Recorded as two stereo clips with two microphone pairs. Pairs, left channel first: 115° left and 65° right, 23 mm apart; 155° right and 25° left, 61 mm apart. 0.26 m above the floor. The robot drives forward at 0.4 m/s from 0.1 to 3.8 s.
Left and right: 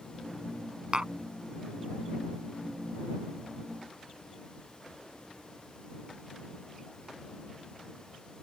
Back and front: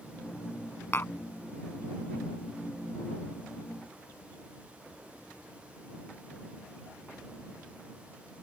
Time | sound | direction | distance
0.9 | tapping | 110° right | ?